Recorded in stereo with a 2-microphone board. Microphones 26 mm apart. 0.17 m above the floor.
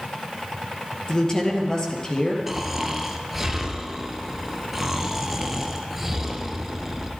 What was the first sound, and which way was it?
A woman speaking, 25° left (ahead or behind).